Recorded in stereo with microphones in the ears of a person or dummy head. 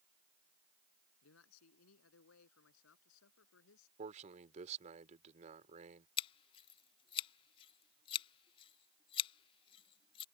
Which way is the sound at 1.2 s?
85° left.